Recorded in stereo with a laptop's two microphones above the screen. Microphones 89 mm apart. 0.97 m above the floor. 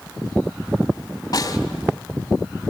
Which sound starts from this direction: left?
A snare drum, at 1.3 s.